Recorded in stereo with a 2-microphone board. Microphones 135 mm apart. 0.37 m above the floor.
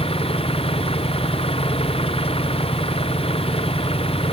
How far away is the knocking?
I don't hear knocking.